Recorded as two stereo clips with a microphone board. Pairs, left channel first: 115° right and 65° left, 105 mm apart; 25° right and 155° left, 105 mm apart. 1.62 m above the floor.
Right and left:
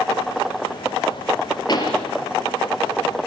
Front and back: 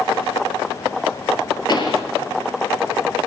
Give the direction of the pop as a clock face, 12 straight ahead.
2 o'clock.